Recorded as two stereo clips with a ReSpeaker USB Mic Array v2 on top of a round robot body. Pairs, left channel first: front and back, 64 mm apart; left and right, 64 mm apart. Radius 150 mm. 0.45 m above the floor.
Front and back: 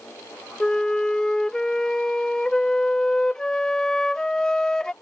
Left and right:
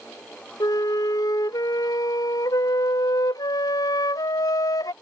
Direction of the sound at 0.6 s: 80° left.